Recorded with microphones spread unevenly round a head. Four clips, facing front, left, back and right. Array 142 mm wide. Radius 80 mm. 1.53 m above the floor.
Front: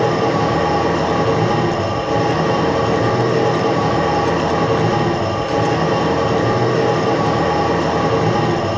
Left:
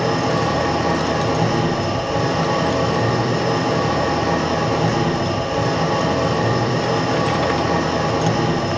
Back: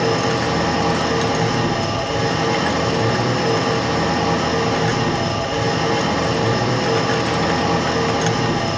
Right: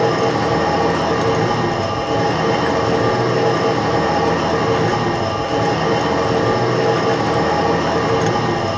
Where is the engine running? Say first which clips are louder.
Right 3 dB, front 3 dB; 50° right, 4 m.